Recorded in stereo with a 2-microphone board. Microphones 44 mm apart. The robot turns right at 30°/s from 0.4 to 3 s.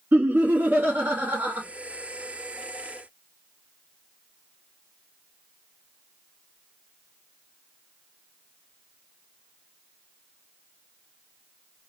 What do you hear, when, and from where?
0.1 s laughter: 105° right, 1.1 m; by 1.6 s 70° right, 1.1 m